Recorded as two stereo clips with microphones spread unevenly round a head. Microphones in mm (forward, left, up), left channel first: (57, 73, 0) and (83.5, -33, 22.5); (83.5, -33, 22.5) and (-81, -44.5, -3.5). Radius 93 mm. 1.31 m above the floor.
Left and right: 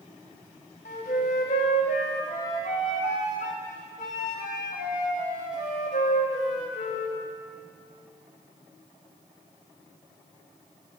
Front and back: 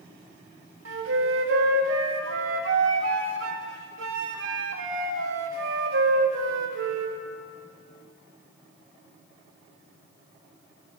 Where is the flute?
155° left, 1.7 m.